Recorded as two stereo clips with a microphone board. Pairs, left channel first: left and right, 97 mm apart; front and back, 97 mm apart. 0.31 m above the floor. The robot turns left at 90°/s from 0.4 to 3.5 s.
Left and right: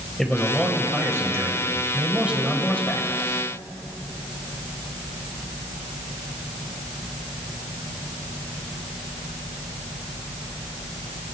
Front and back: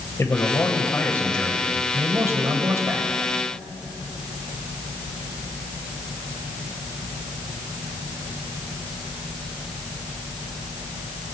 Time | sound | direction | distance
0.2 | a man speaking | 10° left | 1.6 m